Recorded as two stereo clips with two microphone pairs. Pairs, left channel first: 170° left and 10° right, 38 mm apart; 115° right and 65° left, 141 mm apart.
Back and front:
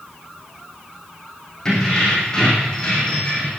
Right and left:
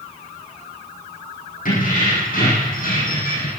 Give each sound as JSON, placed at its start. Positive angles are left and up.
{"t": 1.6, "sound": "keys jangling", "azimuth_deg": -110, "distance_m": 7.0}